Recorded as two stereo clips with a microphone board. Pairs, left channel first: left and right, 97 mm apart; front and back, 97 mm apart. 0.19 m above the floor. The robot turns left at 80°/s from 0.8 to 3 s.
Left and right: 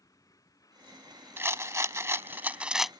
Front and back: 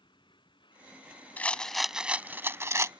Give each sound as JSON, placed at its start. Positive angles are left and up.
{"t": 0.0, "sound": "a vehicle", "azimuth_deg": 35}
{"t": 1.4, "sound": "a rattle", "azimuth_deg": -55}